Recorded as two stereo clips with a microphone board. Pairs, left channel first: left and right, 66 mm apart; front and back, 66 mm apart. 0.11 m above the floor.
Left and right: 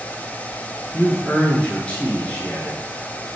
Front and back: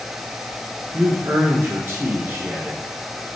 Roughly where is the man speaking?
Behind left.